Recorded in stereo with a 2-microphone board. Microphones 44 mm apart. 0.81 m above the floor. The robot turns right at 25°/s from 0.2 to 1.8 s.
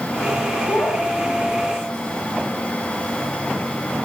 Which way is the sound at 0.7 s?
60° left (ahead or behind).